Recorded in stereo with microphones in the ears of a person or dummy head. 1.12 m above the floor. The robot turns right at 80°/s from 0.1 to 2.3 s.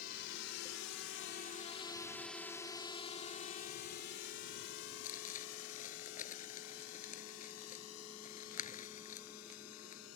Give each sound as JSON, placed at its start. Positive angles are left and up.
{"t": 0.0, "sound": "a drone", "side_deg": 50}
{"t": 5.0, "sound": "crumpling", "side_deg": 40}